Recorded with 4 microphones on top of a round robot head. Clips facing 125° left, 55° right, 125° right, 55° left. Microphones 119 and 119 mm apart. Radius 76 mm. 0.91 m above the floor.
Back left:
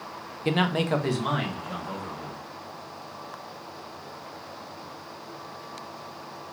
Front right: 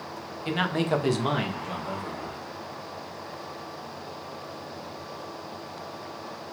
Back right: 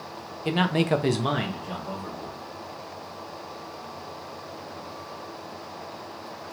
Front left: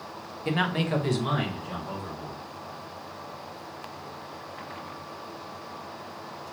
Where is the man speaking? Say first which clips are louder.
Back left 2 dB, back right 4 dB; 160° left, 0.5 m; by 2.4 s 90° right, 1.5 m.